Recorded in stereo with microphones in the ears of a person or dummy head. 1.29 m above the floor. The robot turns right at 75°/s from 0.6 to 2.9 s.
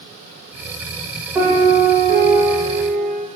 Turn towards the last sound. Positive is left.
turn(degrees=-55)